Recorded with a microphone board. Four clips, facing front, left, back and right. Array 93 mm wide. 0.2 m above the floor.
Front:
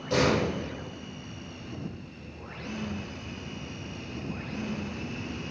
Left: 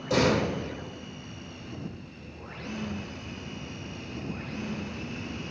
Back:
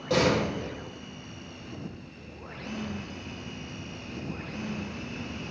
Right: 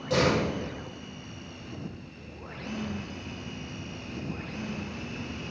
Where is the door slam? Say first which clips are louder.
Left 1 dB, even; 165° left, 5.5 m.